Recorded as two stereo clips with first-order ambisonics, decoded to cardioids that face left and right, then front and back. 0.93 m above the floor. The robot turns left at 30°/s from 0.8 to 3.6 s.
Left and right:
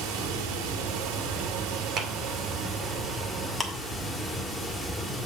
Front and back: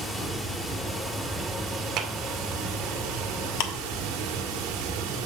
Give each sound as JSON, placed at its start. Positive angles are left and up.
{"t": 0.0, "sound": "running water", "azimuth_deg": -85, "distance_m": 1.9}
{"t": 2.0, "sound": "a clap", "azimuth_deg": -140, "distance_m": 1.5}
{"t": 3.6, "sound": "ticking", "azimuth_deg": 5, "distance_m": 1.2}